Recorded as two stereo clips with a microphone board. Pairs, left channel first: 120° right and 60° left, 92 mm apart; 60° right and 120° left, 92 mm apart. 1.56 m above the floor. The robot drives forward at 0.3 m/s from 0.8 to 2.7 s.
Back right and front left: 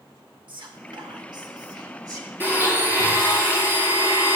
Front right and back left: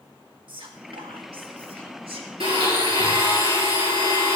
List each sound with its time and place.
0.5 s whispering: 95° left, 1.3 m; by 2.3 s 110° left, 1.4 m
2.4 s a blender: 130° left, 5 m